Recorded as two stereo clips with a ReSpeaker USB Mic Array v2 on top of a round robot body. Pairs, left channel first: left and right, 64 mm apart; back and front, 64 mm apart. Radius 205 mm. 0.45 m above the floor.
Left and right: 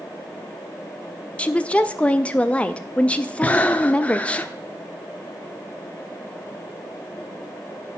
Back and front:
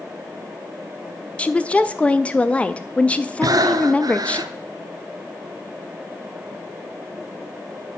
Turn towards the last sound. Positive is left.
turn(degrees=20)